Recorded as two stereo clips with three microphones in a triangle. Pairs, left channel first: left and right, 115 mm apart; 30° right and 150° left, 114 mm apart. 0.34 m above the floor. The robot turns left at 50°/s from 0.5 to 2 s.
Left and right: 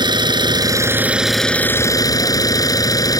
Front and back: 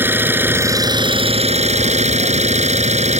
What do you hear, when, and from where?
0.0 s an engine running: 140° right; by 3.2 s 145° left